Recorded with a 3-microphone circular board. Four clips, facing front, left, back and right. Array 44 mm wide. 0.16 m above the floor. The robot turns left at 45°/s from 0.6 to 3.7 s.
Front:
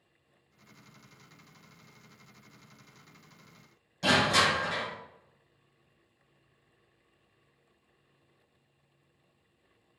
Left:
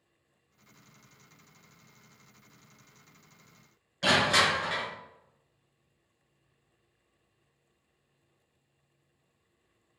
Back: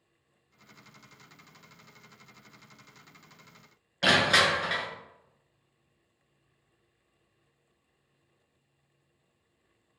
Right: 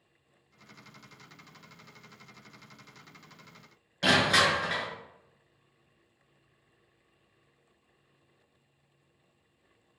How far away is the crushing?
About 1.1 m.